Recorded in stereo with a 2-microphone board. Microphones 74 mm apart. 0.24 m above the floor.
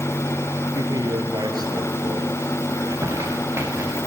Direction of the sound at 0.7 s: 60° right (ahead or behind).